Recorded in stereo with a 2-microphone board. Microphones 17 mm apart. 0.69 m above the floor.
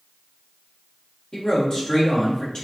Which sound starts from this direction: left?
A man speaking, at 1.3 s.